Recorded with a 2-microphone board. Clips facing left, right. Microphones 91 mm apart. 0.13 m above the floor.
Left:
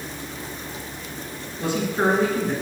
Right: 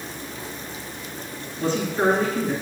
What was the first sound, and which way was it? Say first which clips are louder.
A man speaking: right 1 dB; 15° left (ahead or behind).